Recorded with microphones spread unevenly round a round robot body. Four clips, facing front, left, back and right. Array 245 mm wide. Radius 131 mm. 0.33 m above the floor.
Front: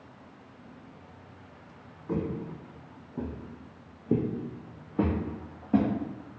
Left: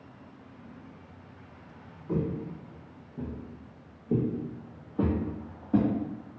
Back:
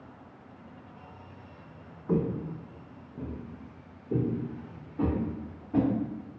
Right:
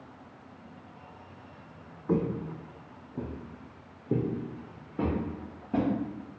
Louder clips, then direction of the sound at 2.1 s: Right 2 dB, back 3 dB; 85° right.